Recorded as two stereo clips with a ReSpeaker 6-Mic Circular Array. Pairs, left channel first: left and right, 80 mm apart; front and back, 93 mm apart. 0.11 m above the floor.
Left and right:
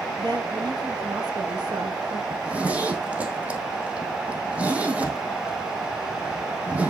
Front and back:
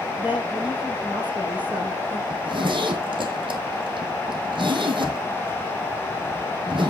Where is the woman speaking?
110° right, 2.5 m.